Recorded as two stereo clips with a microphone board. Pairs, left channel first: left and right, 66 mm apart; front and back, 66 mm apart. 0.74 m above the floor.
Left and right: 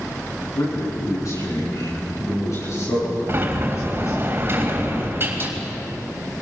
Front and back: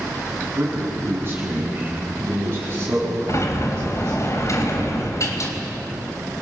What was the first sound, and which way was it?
A man speaking, 125° left.